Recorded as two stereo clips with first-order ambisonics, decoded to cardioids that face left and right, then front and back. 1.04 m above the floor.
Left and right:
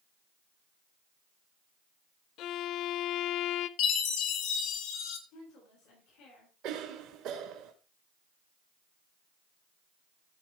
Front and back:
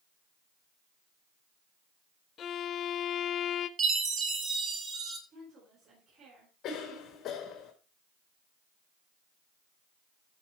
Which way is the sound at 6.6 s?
55° right.